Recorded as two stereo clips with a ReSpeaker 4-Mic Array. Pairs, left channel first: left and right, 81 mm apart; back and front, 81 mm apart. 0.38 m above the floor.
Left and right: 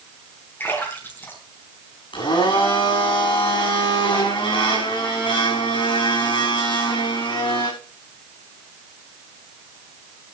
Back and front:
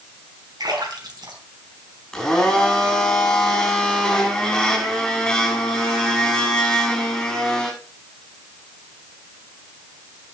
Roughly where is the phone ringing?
I don't hear a phone ringing.